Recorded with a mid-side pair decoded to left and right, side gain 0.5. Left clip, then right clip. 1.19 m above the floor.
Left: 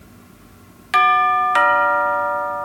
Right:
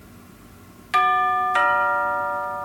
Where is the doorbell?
30° left, 1.9 m.